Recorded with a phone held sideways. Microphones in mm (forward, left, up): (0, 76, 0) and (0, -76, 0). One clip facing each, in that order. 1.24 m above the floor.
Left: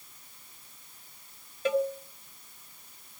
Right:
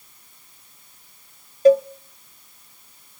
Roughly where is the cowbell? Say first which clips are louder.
Right 12 dB; right.